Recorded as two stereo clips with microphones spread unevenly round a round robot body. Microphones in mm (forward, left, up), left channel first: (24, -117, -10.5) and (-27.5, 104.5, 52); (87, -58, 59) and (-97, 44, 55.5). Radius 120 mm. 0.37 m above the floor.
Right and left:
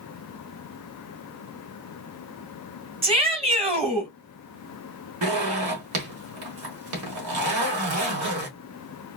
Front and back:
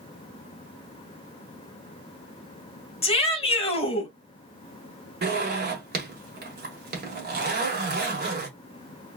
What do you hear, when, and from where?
3.0 s a shout: 30° left, 1.8 m
5.2 s a zipper: 125° left, 1.6 m